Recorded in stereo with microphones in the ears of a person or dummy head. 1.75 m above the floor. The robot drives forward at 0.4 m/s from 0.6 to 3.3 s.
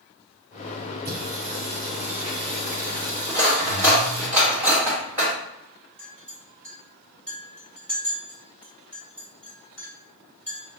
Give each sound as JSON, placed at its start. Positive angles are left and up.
{"t": 1.1, "sound": "singing", "side_deg": -40, "distance_m": 0.8}
{"t": 3.3, "sound": "cutlery clinking", "side_deg": -15, "distance_m": 1.6}
{"t": 6.0, "sound": "a clink", "side_deg": 5, "distance_m": 1.9}